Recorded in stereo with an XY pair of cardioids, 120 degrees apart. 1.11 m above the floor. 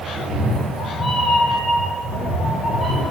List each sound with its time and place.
0.1 s a cat meowing: 40° left, 1.7 m; by 3.0 s 20° left, 3.5 m